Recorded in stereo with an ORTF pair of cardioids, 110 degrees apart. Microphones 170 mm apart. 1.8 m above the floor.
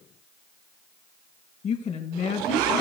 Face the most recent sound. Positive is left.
turn(degrees=40)